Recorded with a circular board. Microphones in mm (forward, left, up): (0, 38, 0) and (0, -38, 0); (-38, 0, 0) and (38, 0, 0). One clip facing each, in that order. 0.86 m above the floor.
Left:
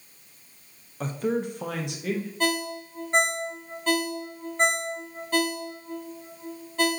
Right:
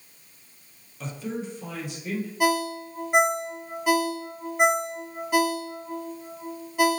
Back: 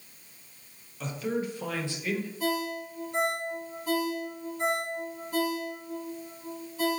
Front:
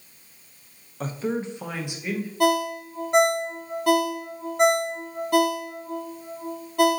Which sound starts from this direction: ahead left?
A man speaking, at 1.0 s.